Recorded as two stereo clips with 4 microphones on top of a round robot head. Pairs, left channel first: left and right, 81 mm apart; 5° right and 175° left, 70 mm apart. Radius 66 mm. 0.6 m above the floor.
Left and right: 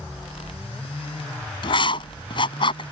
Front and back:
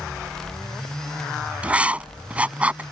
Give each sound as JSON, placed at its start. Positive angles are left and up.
{"t": 1.6, "sound": "writing", "azimuth_deg": 105}